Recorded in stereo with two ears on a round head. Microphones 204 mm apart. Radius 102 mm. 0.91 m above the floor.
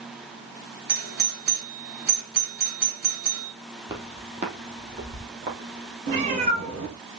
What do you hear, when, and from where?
0.9 s a doorbell: 45° right (ahead or behind), 2 m
3.9 s footsteps: 15° right (ahead or behind), 1.7 m; by 6.0 s 50° right (ahead or behind), 3 m
6.1 s a cat meowing: 30° right (ahead or behind), 5 m